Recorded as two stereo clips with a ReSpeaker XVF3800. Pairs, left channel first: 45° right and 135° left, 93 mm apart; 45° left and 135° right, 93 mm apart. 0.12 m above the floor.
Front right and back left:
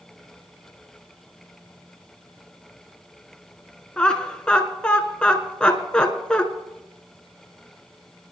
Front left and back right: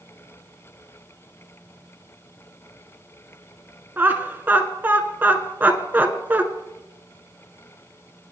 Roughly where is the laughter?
Right.